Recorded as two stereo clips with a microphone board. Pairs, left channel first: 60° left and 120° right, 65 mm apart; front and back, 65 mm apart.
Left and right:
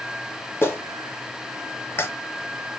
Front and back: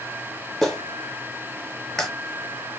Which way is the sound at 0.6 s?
80° left.